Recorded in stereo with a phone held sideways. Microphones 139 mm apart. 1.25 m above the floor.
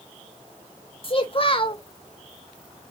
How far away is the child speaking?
About 1.1 m.